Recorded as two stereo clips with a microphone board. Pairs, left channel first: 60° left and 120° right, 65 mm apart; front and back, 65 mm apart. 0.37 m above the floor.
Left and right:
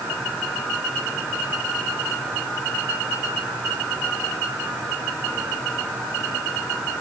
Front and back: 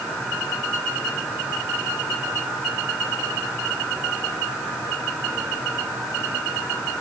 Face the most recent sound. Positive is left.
No sound to turn to.